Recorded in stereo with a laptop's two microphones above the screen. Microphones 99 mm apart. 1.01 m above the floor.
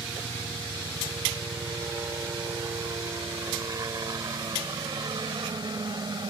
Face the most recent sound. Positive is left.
turn(degrees=-45)  # may be behind; listen again after turning